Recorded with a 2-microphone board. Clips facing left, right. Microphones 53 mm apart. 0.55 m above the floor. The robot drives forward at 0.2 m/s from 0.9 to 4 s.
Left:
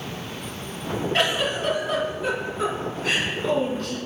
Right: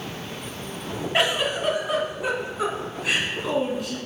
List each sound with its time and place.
1.1 s a giggle: 20° right (ahead or behind), 1.6 m; by 4.0 s 15° right (ahead or behind), 2 m